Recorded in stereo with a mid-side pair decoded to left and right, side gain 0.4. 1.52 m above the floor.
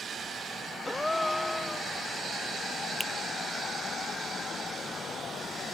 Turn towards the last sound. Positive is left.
turn(degrees=-10)